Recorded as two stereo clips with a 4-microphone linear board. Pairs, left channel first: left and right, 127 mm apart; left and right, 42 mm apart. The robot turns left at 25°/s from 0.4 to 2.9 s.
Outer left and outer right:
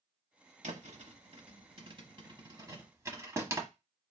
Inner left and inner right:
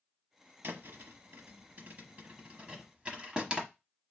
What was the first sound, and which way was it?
A thud, 60° right (ahead or behind).